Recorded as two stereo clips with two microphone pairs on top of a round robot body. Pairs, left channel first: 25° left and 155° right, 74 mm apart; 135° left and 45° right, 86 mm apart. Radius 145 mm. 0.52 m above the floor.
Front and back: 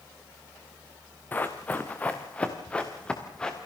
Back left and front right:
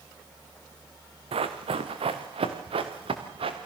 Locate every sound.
1.3 s running footsteps: 45° right, 3 m; by 3.6 s 55° right, 4.5 m